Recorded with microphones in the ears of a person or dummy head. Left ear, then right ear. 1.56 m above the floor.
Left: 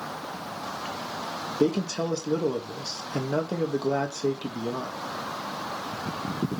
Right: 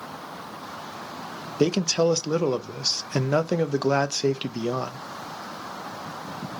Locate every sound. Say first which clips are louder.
1.6 s a man speaking: right 5 dB; 70° right (ahead or behind), 0.5 m